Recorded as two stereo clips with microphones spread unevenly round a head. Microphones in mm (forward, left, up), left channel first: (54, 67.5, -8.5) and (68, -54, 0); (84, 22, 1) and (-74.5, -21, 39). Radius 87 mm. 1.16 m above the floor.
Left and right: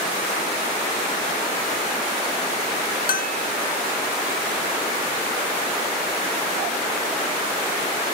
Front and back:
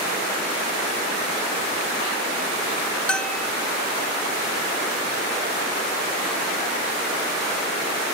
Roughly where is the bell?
Left.